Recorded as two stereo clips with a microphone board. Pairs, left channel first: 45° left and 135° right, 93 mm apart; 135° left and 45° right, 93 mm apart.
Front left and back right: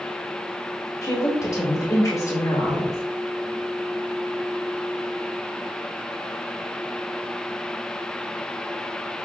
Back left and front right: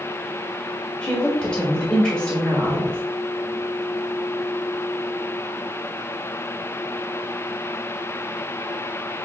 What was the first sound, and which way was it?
A woman speaking, 60° left.